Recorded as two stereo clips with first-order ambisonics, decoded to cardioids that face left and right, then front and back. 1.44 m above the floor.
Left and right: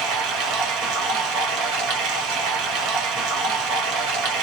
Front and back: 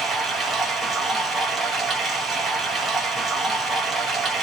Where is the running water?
105° right, 1.1 m.